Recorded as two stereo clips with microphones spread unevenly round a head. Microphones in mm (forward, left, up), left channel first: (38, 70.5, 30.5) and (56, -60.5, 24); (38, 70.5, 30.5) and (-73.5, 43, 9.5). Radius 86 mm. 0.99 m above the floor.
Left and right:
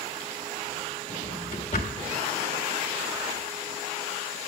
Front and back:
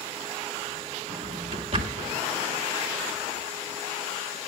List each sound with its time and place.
1.1 s a drawer: 150° left, 1.6 m